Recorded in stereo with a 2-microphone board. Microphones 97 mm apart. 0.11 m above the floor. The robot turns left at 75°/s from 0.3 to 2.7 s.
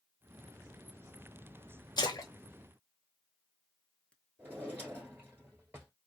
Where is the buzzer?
No buzzer in this recording.